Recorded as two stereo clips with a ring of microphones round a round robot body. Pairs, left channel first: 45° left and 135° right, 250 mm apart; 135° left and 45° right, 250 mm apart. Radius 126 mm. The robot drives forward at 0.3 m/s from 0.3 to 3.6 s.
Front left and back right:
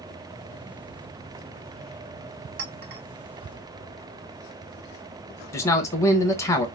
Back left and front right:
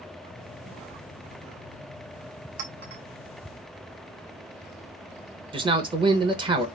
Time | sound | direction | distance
2.6 | a clink | 95° right | 1.3 m
5.5 | a man speaking | 15° right | 0.8 m